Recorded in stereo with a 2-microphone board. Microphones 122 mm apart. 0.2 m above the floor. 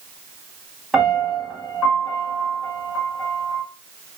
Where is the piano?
5° right (ahead or behind), 1.7 m.